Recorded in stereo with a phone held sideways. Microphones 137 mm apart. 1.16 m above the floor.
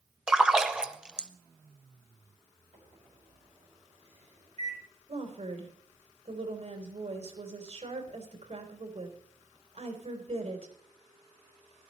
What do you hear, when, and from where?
0.3 s a splash: 5° right (ahead or behind), 0.9 m
2.7 s a microwave: 50° right (ahead or behind), 5.5 m
5.1 s a woman speaking: 55° right (ahead or behind), 3.5 m